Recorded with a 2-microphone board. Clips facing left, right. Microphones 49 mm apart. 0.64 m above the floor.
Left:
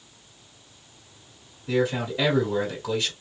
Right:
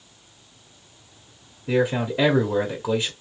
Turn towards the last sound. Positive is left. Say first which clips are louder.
# right 3 dB
turn(degrees=-25)  # may be behind; listen again after turning